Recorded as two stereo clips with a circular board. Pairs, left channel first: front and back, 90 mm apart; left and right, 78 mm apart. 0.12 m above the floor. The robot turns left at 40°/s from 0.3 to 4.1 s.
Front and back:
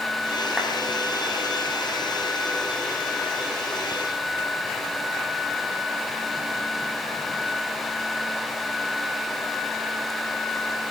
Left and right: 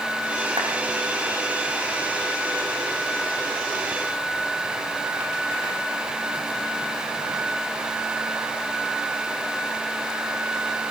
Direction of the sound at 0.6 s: 95° right.